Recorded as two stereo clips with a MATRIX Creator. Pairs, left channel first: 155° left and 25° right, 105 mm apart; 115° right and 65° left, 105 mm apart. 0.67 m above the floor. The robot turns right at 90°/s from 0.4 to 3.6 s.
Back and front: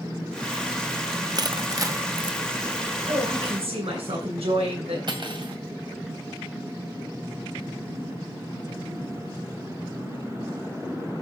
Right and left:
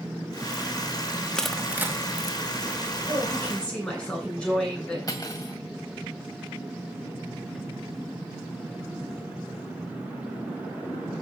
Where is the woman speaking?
80° right, 9 m; by 5.0 s 35° right, 9 m.